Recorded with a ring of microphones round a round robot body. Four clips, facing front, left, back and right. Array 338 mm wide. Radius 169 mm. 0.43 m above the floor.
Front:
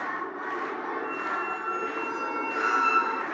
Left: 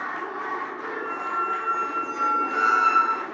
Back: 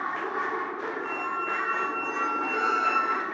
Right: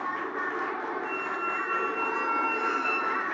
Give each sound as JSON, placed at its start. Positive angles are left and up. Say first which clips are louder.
{"t": 1.0, "sound": "a squeak", "louder": "left 4 dB, even", "azimuth_deg": 95, "distance_m": 0.8}